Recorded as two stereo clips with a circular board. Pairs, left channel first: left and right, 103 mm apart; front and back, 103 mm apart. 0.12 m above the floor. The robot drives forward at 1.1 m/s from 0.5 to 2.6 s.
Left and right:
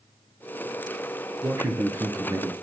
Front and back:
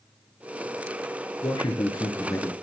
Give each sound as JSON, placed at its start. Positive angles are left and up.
{"t": 1.4, "sound": "a man speaking", "azimuth_deg": -30, "distance_m": 2.5}